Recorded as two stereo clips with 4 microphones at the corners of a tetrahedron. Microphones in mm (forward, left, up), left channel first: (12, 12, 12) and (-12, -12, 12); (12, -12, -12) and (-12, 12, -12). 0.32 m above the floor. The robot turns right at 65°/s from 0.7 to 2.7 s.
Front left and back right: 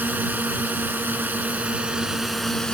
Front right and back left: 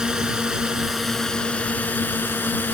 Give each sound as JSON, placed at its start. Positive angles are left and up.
{"t": 0.0, "sound": "a drone", "azimuth_deg": -155}